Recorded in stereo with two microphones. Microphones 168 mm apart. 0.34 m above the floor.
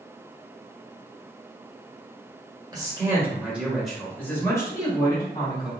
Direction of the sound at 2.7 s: 25° right (ahead or behind).